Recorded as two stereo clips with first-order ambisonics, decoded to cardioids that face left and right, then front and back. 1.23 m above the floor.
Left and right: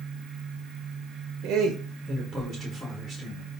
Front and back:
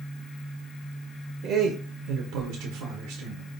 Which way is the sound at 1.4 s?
125° right.